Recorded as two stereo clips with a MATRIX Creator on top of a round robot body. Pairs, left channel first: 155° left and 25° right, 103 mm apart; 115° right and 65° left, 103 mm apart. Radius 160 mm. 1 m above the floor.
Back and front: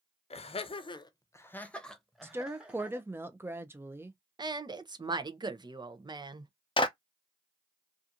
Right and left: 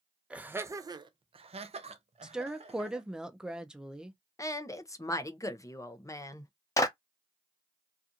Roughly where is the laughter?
Behind left.